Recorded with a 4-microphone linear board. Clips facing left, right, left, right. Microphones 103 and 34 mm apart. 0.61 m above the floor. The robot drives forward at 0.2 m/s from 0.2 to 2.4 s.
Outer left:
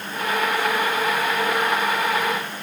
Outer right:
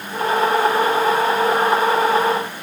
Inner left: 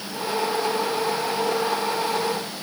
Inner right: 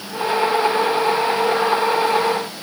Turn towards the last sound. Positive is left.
No sound to turn to.